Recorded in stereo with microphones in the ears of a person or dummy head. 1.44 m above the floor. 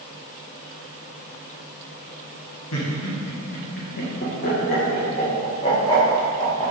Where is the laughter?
80° left, 1.6 m; by 6.7 s 20° left (ahead or behind), 2 m.